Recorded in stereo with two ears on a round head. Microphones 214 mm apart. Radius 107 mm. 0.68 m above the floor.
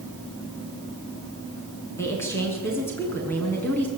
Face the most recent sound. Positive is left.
turn(degrees=5)  # may be behind; listen again after turning